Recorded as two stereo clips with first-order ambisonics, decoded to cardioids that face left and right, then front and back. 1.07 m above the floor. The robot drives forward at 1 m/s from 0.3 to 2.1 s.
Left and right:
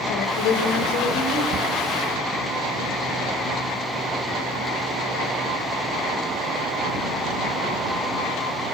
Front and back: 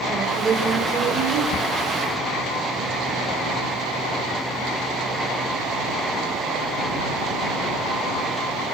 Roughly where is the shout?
Ahead right.